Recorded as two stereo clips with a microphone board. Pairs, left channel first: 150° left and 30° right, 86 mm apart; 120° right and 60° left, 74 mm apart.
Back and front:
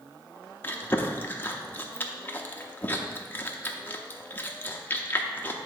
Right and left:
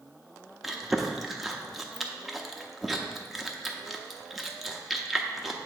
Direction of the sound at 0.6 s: 145° left.